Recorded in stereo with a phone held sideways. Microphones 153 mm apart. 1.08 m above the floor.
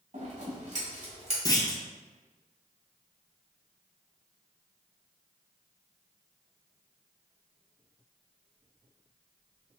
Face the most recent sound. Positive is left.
turn(degrees=25)  # may be behind; listen again after turning